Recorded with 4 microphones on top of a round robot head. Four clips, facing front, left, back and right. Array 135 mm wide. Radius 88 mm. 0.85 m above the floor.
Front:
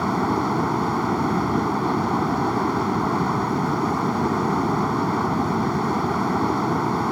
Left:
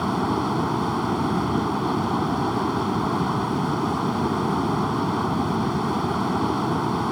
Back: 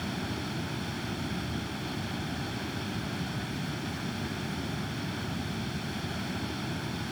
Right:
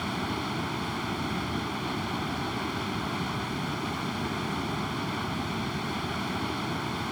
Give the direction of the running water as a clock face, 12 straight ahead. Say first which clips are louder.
Left 9 dB, front 14 dB; 11 o'clock.